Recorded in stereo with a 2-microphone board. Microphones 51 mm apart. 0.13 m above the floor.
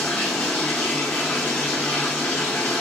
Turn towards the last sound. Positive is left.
turn(degrees=30)  # may be behind; listen again after turning